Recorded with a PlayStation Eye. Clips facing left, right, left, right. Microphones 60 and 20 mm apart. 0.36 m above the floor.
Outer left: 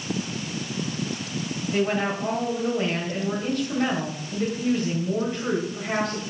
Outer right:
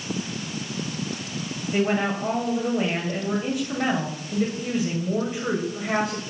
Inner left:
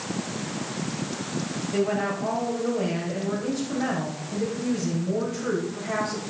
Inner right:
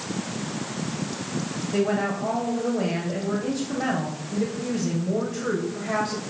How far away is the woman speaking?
About 2.0 m.